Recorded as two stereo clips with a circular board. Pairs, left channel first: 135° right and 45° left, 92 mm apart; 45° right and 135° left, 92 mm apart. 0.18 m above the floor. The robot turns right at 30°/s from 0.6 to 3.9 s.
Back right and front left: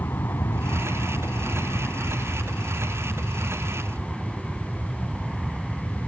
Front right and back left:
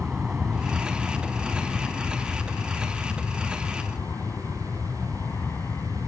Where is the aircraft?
140° right; by 6.1 s 40° right.